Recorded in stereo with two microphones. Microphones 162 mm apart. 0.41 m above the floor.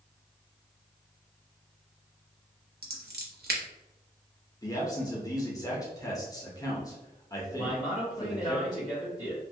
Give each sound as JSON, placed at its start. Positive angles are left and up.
{"t": 2.8, "sound": "scissors", "side_deg": -80, "distance_m": 0.8}
{"t": 4.6, "sound": "a man speaking", "side_deg": 20, "distance_m": 0.9}
{"t": 7.6, "sound": "a man speaking", "side_deg": 25, "distance_m": 2.0}